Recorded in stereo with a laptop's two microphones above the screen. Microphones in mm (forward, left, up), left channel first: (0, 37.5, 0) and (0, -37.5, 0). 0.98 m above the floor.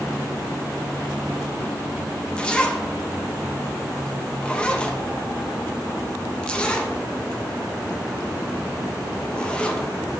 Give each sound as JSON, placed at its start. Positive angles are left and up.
{"t": 2.4, "sound": "a zipper", "side_deg": 15, "distance_m": 0.6}